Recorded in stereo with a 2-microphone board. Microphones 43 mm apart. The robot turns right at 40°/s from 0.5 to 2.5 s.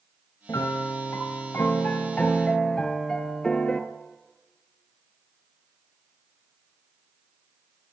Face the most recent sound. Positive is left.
turn(degrees=165)